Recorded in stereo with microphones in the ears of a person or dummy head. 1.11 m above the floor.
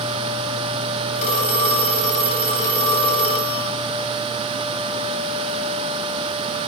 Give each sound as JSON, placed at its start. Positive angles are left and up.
{"t": 1.1, "sound": "a phone ringing", "side_deg": 45, "distance_m": 8.5}